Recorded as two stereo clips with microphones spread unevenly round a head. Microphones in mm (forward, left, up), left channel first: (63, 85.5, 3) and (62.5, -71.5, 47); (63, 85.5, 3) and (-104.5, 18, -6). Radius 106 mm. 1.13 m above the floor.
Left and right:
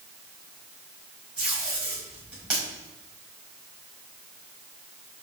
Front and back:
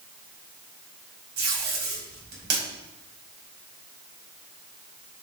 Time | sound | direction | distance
1.4 | tape being pulled | 175° left | 4.5 m